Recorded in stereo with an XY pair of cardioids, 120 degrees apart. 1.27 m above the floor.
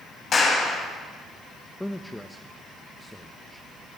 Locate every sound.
0.3 s a clap: 45° left, 9 m
1.8 s a man speaking: 5° left, 1.3 m